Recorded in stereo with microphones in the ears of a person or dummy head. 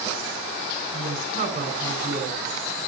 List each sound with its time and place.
0.9 s a woman speaking: 50° right (ahead or behind), 7 m